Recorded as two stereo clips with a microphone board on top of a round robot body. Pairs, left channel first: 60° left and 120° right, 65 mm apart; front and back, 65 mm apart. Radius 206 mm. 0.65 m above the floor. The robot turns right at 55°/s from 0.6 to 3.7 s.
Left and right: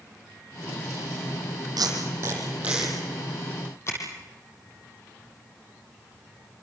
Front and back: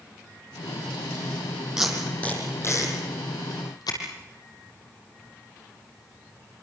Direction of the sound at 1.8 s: 100° right.